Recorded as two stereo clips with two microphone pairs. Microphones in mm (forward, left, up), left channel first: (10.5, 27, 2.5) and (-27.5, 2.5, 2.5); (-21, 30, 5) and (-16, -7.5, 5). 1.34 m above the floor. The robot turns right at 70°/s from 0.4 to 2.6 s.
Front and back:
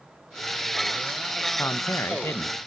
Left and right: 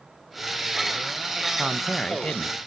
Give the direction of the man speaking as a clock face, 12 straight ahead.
12 o'clock.